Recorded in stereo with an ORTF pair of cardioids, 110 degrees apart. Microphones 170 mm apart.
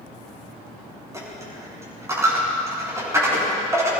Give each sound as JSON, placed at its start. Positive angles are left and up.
{"t": 1.1, "sound": "a dropped coin", "azimuth_deg": -15, "distance_m": 6.0}